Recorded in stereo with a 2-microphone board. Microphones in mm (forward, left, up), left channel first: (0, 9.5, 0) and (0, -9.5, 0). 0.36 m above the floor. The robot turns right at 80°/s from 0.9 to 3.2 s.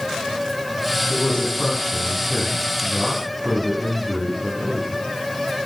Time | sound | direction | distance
1.1 | a man speaking | 80° left | 3.5 m